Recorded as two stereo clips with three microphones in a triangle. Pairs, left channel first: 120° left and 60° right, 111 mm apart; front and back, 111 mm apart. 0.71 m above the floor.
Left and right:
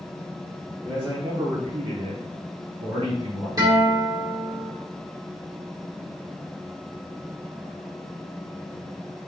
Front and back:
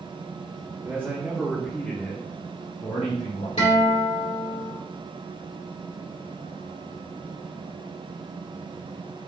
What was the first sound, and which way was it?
A man speaking, 125° right.